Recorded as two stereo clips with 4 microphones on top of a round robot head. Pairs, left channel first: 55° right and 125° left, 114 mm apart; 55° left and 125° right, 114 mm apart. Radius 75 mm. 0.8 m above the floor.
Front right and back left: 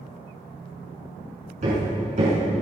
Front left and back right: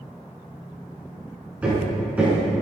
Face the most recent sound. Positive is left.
turn(degrees=155)